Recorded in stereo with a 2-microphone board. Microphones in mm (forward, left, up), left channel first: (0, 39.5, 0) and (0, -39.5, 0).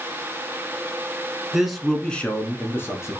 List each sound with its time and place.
1.5 s a man speaking: 5° right (ahead or behind), 1.2 m; by 3.2 s 40° left (ahead or behind), 1.4 m